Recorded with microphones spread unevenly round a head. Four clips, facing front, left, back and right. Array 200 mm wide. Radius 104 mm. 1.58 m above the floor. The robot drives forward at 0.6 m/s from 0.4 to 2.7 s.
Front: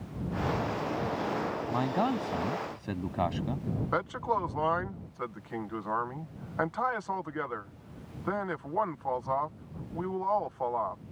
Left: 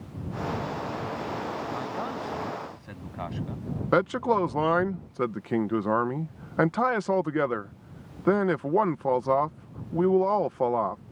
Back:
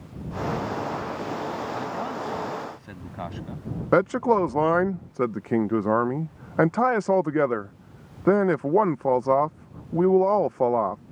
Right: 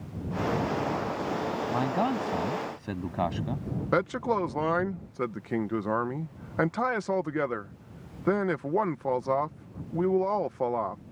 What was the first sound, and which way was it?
A man speaking, 60° right.